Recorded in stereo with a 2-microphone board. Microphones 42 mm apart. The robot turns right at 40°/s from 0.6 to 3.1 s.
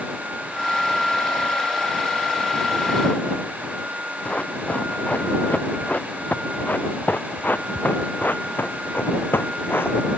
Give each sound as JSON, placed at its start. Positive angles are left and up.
{"t": 4.2, "sound": "running footsteps", "side_deg": 30}